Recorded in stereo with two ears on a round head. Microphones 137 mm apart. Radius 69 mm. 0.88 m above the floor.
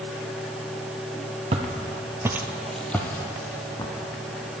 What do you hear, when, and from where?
1.5 s footsteps: 40° right (ahead or behind), 1.1 m; by 4.6 s 30° left (ahead or behind), 2.5 m